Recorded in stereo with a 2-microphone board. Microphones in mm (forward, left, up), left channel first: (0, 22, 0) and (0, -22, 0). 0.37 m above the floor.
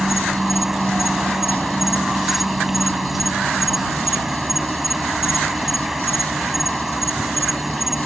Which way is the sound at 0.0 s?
5° right (ahead or behind).